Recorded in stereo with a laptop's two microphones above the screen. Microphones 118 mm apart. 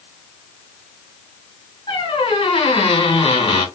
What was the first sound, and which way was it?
A squeak, 50° left (ahead or behind).